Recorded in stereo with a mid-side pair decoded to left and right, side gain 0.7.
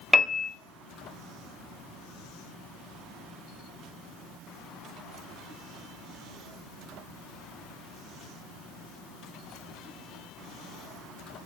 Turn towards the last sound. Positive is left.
turn(degrees=0)